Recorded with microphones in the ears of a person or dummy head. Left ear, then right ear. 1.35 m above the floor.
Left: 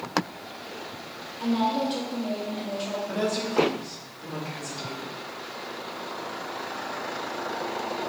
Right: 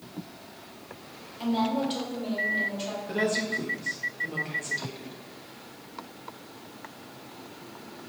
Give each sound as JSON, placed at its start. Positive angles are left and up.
{"t": 1.4, "sound": "a woman speaking", "side_deg": -30, "distance_m": 1.4}
{"t": 3.1, "sound": "a woman speaking", "side_deg": -15, "distance_m": 1.1}